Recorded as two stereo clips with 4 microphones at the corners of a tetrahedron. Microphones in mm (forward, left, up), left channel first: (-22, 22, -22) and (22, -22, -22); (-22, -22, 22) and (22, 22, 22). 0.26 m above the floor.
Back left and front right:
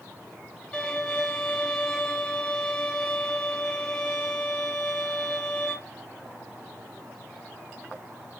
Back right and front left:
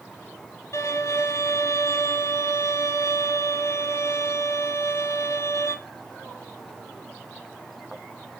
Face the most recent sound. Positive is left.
turn(degrees=-150)